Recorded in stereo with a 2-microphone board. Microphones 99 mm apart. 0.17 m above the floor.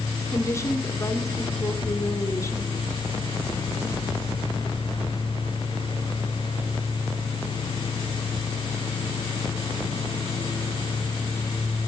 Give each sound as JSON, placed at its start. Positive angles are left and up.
{"t": 0.3, "sound": "a woman speaking", "side_deg": 30, "distance_m": 1.4}